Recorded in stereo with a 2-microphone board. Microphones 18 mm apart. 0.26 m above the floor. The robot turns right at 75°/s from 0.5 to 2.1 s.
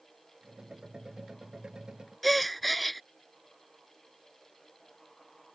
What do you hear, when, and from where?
2.2 s a gasp: centre (ahead or behind)